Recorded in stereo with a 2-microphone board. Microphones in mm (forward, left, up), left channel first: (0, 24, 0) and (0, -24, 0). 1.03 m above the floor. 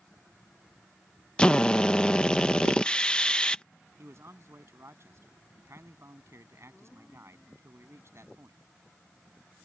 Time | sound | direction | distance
1.4 | a drill | 20° left (ahead or behind) | ?
4.0 | a man speaking | 65° right (ahead or behind) | ?